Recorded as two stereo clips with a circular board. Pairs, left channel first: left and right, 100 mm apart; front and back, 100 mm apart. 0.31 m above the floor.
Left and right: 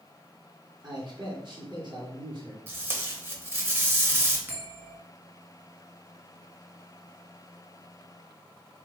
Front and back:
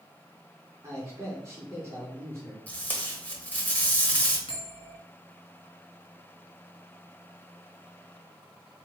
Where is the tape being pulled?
55° right, 0.9 m.